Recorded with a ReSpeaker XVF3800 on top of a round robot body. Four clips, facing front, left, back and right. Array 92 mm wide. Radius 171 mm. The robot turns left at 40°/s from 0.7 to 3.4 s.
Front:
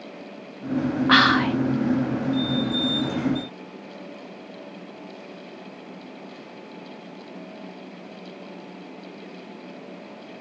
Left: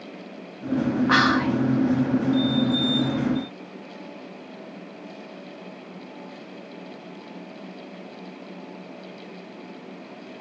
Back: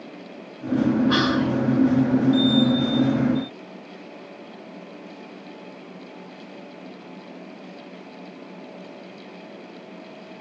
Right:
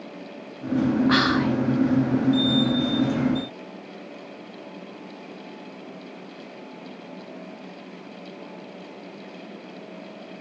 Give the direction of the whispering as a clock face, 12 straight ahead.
11 o'clock.